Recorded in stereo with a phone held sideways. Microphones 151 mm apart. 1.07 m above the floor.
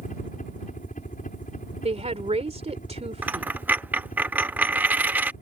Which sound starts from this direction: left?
A helicopter, at 0.0 s.